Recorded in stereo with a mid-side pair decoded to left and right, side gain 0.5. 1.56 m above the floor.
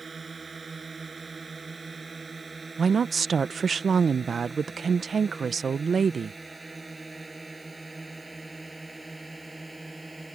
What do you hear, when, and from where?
0.0 s a drone: 30° right; by 10.3 s 15° right
2.8 s a woman speaking: 40° right